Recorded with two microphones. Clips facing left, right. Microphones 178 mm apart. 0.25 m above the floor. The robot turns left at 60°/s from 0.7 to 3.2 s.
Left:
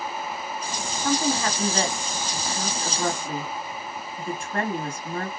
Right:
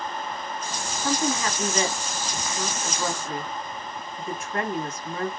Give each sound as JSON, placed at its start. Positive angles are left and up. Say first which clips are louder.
{"t": 1.0, "sound": "a woman speaking", "louder": "left 2 dB", "azimuth_deg": 175, "distance_m": 1.5}